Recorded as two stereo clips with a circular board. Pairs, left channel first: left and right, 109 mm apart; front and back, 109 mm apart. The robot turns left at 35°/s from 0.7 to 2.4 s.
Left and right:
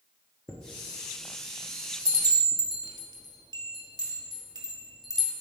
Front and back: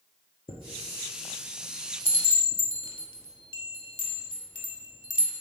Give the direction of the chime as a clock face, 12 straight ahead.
11 o'clock.